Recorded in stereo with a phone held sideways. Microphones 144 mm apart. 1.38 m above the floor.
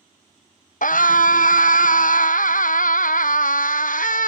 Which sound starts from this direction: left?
A scream, at 0.8 s.